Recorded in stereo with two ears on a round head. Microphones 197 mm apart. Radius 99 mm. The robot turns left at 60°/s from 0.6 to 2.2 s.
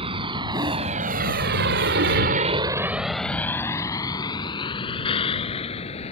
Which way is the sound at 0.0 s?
25° right (ahead or behind).